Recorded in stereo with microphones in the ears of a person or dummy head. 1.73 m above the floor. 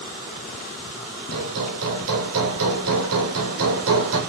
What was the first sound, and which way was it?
Hammering, 75° right (ahead or behind).